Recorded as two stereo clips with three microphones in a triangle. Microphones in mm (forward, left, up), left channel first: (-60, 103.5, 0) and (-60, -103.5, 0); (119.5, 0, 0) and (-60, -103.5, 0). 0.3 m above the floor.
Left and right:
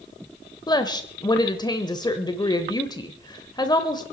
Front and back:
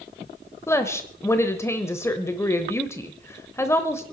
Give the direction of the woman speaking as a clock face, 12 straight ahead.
9 o'clock.